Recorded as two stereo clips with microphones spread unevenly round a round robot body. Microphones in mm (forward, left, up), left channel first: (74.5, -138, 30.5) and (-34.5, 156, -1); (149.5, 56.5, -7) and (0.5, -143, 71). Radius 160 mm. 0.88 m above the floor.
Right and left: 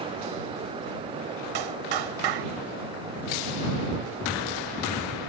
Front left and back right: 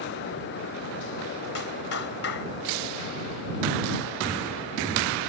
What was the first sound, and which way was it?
A clap, 105° left.